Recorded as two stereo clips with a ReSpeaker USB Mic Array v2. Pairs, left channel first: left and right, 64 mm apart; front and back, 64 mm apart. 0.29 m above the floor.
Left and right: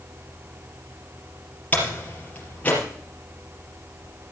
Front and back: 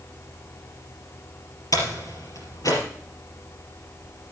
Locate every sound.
1.7 s a door slam: 25° left, 4 m